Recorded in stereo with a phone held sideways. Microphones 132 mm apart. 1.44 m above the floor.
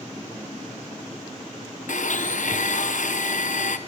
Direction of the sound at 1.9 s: 70° left (ahead or behind).